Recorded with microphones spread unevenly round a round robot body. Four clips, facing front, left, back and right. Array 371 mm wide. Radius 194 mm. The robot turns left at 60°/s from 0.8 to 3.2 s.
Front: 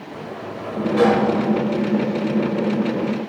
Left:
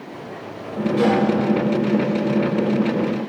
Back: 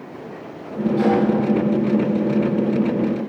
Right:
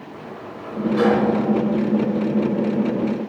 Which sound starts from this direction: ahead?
A sliding door, at 0.1 s.